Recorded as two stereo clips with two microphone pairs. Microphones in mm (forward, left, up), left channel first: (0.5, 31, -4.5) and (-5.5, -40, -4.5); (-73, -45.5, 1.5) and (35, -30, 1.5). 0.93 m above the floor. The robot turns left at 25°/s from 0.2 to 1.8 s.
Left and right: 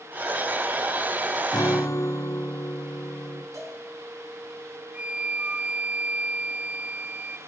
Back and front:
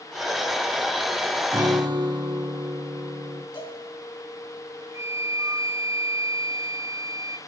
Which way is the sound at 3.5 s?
130° right.